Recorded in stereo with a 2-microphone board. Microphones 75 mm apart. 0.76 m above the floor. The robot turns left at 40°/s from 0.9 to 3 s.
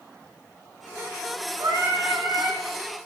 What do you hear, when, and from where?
1.6 s singing: 120° right, 0.8 m; by 2.6 s 165° right, 0.8 m